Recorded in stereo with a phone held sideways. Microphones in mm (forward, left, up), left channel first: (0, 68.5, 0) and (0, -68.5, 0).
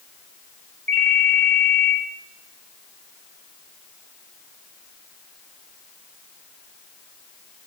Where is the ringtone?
70° right (ahead or behind), 1.2 m.